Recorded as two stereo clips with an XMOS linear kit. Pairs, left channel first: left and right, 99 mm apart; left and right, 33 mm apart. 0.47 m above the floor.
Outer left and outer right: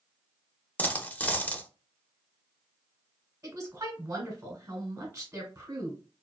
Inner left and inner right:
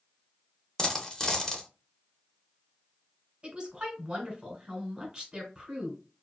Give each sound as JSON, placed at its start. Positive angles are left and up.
{"t": 0.8, "sound": "a dropped coin", "side_deg": 15, "distance_m": 0.5}
{"t": 3.4, "sound": "a woman speaking", "side_deg": -25, "distance_m": 1.2}